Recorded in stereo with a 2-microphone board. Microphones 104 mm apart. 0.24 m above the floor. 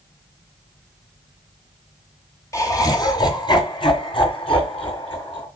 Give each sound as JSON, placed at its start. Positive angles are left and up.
{"t": 2.5, "sound": "laughter", "side_deg": 30, "distance_m": 1.7}